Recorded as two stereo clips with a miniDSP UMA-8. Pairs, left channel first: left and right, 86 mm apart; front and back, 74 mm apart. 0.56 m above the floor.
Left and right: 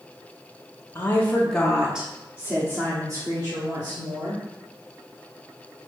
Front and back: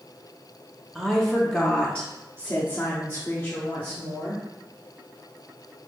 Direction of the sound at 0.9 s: 95° left.